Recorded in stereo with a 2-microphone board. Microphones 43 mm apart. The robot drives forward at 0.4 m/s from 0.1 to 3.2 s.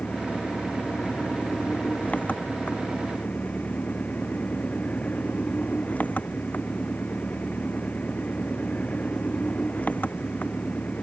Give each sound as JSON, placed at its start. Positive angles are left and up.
{"t": 0.0, "sound": "an engine running", "side_deg": 30}